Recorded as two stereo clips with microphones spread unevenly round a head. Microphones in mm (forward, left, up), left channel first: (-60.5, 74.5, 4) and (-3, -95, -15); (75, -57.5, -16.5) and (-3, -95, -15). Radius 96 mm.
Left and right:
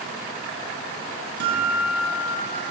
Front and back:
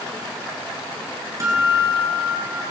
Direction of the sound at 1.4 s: 100° right.